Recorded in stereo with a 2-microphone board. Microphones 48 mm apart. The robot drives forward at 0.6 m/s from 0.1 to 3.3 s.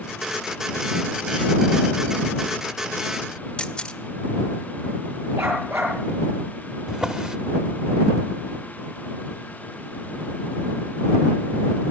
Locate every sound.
3.6 s a camera shutter: 20° left (ahead or behind), 1.7 m
5.4 s a dog barking: 70° right (ahead or behind), 7 m
6.9 s a drawer: 20° right (ahead or behind), 1.1 m